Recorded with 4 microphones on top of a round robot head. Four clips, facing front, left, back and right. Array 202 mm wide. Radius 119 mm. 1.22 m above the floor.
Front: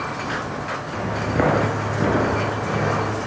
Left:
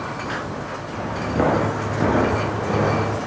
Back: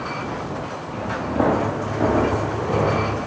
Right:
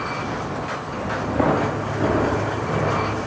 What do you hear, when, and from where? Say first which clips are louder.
0.9 s footsteps: even, even; 5° right, 1.4 m; by 3.2 s 135° left, 1.6 m